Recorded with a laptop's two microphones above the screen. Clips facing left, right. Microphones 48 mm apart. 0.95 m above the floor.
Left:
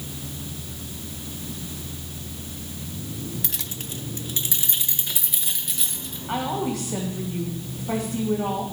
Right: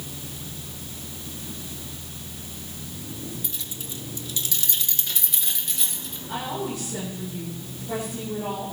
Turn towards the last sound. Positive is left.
turn(degrees=75)  # may be behind; listen again after turning